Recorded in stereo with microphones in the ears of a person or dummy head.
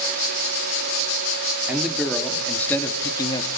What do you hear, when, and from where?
1.7 s a man speaking: 5° right (ahead or behind), 2.0 m; by 3.5 s 20° left (ahead or behind), 1.5 m